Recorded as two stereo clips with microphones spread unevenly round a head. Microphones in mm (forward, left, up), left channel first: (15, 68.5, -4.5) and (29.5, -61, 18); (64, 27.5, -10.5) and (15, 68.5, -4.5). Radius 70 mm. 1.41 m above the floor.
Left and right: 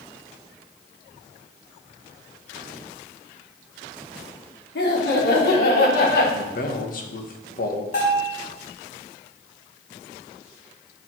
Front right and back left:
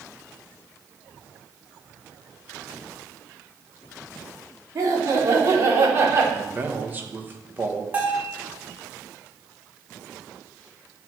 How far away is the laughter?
About 3 m.